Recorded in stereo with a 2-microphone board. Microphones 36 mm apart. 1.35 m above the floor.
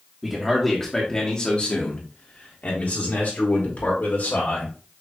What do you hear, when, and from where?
0.2 s a man speaking: 5° right (ahead or behind), 1.0 m; by 4.7 s 70° left (ahead or behind), 2.5 m